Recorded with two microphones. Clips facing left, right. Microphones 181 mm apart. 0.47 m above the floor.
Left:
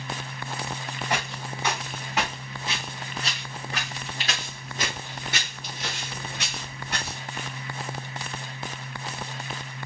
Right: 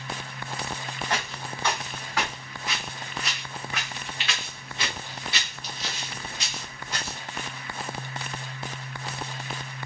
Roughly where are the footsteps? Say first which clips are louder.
Left 2 dB; centre.